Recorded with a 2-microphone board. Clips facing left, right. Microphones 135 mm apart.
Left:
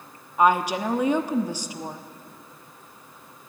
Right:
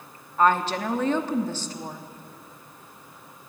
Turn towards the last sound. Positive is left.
turn(degrees=15)  # may be behind; listen again after turning